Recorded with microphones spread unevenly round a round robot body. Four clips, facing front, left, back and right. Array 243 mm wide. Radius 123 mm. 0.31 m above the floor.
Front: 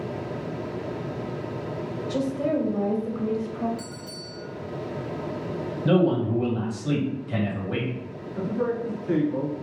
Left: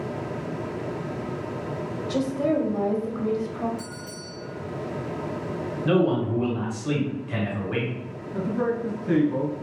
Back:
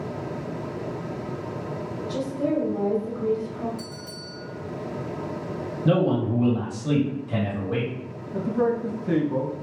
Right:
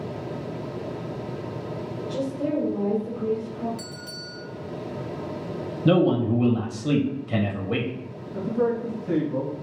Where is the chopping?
No chopping in this recording.